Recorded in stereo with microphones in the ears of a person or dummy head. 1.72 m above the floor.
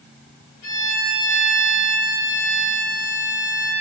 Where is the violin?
85° left, 4.5 m.